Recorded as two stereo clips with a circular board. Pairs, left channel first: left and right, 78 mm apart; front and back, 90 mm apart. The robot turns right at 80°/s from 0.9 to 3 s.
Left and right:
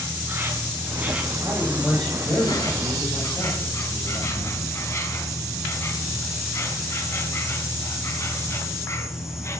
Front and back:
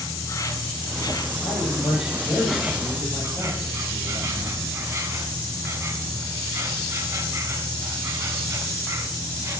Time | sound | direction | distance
0.0 | an insect | 40° right | 2.5 m
1.4 | a man speaking | 35° right | 8.5 m